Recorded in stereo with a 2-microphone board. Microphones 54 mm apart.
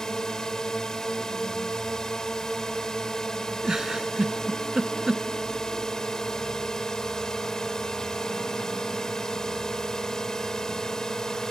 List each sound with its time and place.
0.0 s a drone: 10° left (ahead or behind)
3.6 s a giggle: 15° right (ahead or behind)